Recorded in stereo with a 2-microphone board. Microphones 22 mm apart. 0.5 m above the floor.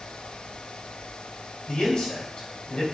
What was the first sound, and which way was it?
A man speaking, 55° left (ahead or behind).